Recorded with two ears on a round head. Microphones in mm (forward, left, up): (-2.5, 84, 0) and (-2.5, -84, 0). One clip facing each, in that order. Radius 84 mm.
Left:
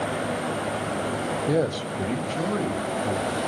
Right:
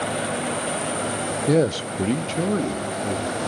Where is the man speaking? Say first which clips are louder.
Right 5 dB; 25° right (ahead or behind), 0.6 m; by 3.5 s 40° right (ahead or behind), 3 m.